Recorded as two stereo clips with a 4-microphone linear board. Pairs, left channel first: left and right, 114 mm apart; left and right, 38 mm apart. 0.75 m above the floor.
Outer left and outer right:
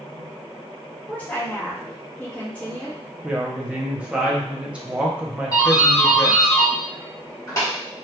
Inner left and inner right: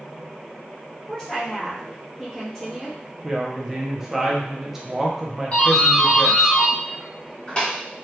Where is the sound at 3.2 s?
10° right (ahead or behind), 0.7 m.